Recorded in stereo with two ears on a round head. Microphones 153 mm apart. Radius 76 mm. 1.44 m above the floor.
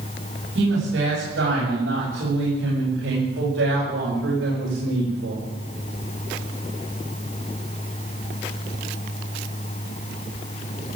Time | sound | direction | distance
0.6 | a woman speaking | 75° right (ahead or behind) | 7 m